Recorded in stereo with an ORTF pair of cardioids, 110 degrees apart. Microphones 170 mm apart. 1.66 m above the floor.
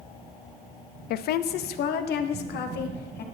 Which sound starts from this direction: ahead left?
A woman speaking, at 1.1 s.